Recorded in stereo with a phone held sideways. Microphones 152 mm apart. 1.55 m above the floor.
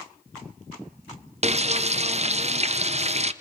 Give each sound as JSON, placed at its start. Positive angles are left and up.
{"t": 1.4, "sound": "frying", "side_deg": -45, "distance_m": 0.6}